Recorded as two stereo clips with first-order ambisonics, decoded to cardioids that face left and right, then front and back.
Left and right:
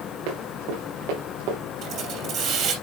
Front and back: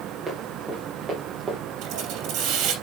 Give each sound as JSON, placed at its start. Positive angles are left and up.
{"t": 0.3, "sound": "running footsteps", "azimuth_deg": -95, "distance_m": 5.0}
{"t": 1.8, "sound": "a hiss", "azimuth_deg": -140, "distance_m": 3.0}